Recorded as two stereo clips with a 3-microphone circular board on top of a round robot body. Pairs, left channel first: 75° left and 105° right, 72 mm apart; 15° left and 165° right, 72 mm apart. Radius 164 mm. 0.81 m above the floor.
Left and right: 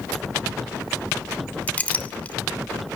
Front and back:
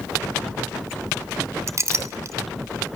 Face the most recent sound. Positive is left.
turn(degrees=145)